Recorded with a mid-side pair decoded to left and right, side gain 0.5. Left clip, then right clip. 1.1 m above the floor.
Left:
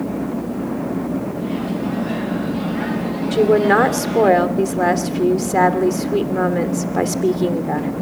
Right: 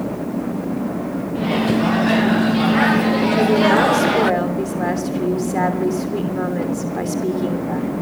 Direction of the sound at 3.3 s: 40° left.